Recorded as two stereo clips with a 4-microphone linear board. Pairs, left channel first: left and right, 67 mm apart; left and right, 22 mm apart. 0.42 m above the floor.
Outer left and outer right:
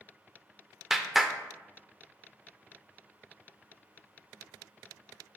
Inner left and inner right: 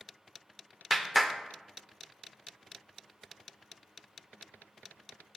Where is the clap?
5° right (ahead or behind), 0.6 m.